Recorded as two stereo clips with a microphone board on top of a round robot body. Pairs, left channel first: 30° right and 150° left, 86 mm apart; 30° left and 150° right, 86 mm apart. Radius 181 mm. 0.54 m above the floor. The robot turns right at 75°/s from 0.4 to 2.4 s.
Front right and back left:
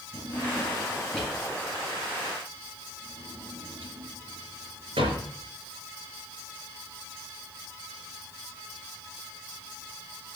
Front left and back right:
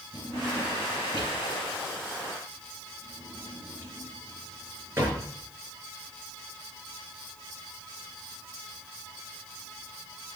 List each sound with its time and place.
0.1 s a drawer: 5° right, 6.5 m; by 5.2 s 145° left, 6.5 m